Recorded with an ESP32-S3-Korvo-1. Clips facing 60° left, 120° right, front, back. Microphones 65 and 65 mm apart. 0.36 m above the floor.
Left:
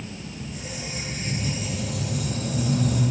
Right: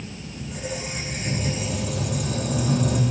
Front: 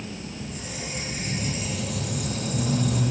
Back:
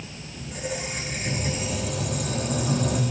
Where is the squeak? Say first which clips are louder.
Right 8 dB, back 3 dB; 145° right, 4.5 m.